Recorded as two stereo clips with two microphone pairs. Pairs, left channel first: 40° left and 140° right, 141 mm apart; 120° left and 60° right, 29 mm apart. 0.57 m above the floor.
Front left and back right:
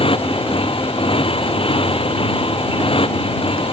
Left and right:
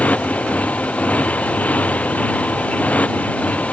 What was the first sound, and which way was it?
A motorcycle, 90° left.